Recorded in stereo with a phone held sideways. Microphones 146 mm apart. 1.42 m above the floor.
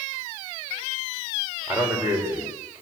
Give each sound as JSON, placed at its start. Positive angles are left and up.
{"t": 1.7, "sound": "a man speaking", "side_deg": -15, "distance_m": 6.0}